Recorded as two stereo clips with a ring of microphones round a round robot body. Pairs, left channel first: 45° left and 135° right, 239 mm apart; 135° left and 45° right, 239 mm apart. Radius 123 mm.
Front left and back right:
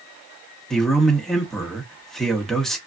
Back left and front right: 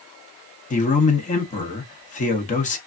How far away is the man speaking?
About 0.9 m.